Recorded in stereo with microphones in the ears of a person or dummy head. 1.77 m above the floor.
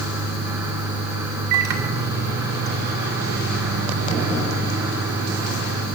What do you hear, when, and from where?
1.5 s a microwave: 60° right (ahead or behind), 2 m